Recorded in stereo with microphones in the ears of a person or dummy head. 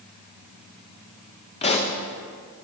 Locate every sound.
1.6 s a pop: 35° left (ahead or behind), 1.0 m